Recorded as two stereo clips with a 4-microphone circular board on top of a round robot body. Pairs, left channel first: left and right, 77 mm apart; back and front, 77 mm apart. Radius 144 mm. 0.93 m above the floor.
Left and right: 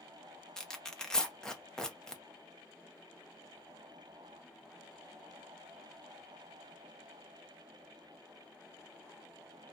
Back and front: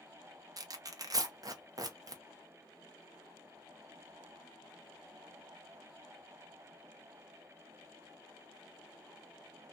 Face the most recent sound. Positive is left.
turn(degrees=10)